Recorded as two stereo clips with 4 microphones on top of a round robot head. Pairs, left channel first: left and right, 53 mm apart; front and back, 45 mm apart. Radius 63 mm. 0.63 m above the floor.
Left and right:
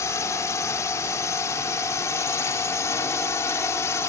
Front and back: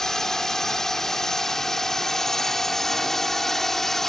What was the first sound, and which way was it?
A drone, 80° left.